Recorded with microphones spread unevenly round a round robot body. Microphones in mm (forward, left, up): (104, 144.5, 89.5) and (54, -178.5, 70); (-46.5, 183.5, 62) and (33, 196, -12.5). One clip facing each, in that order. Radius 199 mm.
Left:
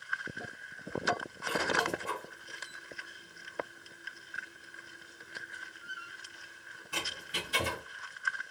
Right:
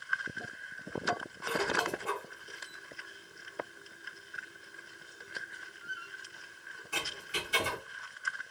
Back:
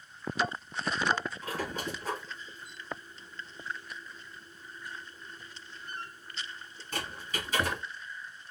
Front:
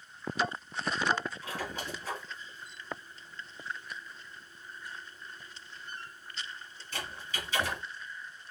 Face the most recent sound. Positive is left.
turn(degrees=175)